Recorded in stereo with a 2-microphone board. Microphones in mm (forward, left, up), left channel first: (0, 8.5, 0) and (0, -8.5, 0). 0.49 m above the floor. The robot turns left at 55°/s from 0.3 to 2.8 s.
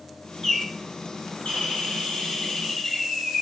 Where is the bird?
165° left, 3.5 m; by 3.4 s 35° left, 3.5 m.